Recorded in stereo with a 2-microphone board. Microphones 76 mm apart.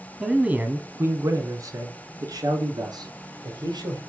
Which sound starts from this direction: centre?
A man speaking, at 0.2 s.